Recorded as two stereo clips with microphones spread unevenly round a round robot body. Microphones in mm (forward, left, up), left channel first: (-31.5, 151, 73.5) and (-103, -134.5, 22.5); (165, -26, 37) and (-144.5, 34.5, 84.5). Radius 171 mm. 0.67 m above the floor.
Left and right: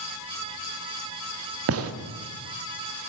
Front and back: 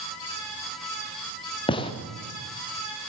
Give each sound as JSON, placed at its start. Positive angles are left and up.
{"t": 1.7, "sound": "a gunshot", "azimuth_deg": -80, "distance_m": 1.1}